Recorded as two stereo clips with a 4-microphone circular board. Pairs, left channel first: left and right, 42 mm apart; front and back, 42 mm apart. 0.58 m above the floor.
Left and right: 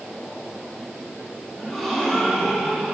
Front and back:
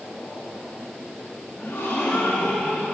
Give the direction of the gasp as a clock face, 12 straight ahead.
12 o'clock.